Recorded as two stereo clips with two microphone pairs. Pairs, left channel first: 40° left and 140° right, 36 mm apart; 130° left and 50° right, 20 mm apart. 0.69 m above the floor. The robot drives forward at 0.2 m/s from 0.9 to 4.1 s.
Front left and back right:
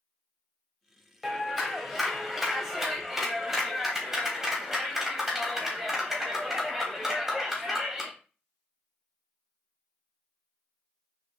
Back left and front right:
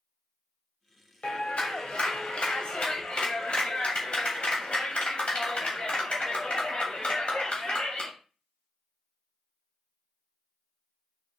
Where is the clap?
135° left, 2.5 m; by 8.1 s 140° left, 3 m.